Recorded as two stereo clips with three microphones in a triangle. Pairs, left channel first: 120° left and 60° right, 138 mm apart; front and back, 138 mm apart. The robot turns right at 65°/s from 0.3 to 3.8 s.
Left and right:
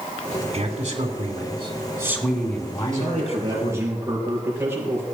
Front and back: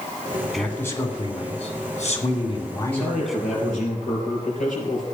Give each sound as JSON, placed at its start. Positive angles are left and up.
{"t": 0.5, "sound": "a man speaking", "azimuth_deg": -90, "distance_m": 2.0}
{"t": 2.9, "sound": "a man speaking", "azimuth_deg": -45, "distance_m": 5.5}